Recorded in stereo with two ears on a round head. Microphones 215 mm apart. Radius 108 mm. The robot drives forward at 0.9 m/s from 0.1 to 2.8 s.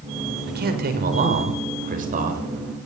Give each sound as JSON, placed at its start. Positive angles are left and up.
{"t": 0.5, "sound": "a man speaking", "side_deg": -45, "distance_m": 6.5}